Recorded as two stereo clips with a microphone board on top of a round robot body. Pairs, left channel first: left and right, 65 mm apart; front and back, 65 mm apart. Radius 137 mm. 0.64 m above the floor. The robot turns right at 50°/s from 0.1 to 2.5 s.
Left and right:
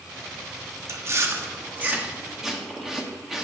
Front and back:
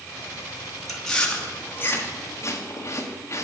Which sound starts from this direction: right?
Chewing, at 0.9 s.